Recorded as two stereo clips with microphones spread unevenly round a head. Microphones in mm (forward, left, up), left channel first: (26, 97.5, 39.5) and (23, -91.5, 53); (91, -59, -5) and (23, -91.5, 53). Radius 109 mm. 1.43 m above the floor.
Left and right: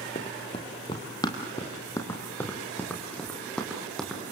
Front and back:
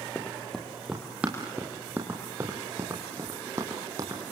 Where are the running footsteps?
150° left, 2 m; by 4.3 s straight behind, 3.5 m.